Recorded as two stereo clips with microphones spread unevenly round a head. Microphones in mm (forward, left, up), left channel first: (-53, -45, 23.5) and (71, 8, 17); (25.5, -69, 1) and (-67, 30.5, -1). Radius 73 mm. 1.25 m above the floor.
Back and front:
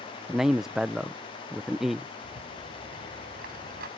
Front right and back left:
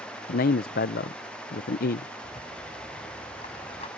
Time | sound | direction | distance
0.3 | a man speaking | 65° right | ?
2.2 | a rattle | 5° left | ?